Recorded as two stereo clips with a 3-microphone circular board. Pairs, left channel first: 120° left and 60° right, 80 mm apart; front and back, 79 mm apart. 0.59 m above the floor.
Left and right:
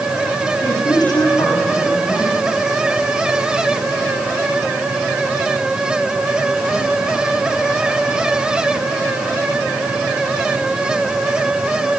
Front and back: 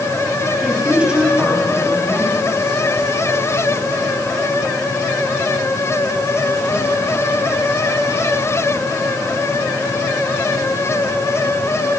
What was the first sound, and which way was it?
A woman speaking, 105° left.